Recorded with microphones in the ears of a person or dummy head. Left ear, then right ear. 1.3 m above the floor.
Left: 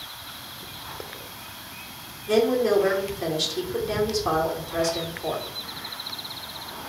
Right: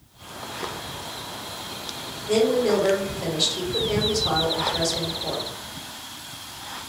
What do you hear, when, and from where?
2.3 s a woman speaking: 70° left (ahead or behind), 1.3 m